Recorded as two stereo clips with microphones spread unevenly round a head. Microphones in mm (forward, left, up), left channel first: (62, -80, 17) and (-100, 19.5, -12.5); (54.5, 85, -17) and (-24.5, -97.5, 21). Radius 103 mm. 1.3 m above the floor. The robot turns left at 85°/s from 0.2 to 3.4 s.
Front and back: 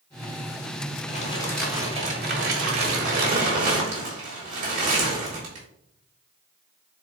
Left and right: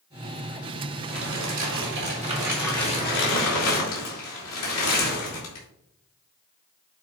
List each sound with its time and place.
1.1 s crumpling: 75° right, 3.5 m; by 5.7 s 90° left, 3.5 m